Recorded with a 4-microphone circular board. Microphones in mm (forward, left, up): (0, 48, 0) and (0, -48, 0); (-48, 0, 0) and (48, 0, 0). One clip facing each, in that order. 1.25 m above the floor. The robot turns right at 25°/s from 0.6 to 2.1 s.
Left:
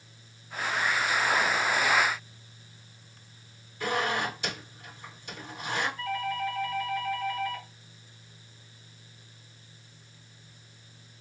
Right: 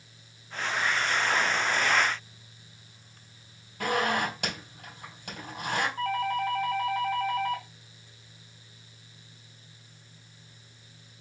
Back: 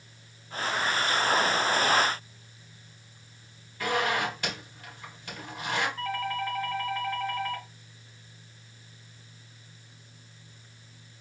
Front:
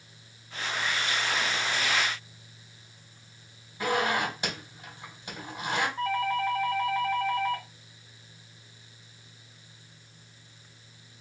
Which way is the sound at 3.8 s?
70° right.